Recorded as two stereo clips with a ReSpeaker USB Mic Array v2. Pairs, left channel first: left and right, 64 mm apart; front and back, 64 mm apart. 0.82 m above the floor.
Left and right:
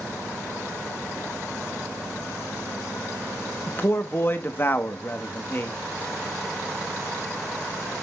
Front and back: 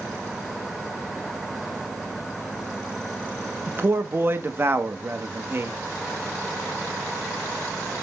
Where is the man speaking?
135° left, 0.7 m.